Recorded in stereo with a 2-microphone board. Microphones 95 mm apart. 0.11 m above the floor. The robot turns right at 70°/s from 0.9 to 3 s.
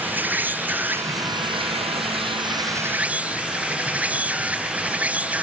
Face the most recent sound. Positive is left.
turn(degrees=-15)